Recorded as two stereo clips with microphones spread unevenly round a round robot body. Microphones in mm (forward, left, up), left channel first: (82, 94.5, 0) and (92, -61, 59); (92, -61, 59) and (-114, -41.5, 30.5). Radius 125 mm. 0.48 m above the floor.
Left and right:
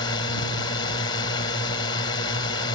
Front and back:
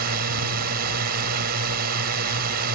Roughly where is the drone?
Behind left.